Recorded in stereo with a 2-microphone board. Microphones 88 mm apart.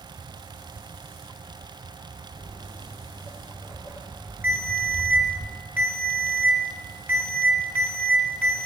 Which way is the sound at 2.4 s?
30° right (ahead or behind).